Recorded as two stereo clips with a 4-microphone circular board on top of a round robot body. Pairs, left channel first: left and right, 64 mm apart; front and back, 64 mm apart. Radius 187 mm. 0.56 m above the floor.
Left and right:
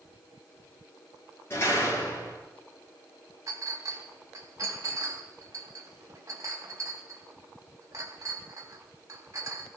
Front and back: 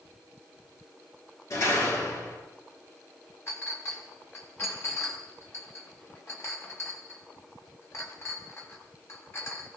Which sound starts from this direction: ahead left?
A door slam, at 1.5 s.